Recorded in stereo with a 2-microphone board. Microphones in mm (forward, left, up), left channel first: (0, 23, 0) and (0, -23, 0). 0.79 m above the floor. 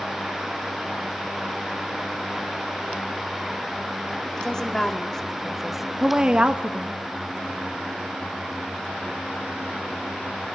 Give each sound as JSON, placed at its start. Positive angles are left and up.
{"t": 4.3, "sound": "a woman speaking", "side_deg": 15, "distance_m": 2.5}